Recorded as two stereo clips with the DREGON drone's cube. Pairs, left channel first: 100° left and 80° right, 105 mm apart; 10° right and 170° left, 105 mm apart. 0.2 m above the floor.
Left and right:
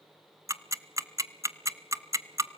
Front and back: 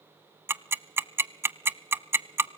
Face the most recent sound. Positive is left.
turn(degrees=-125)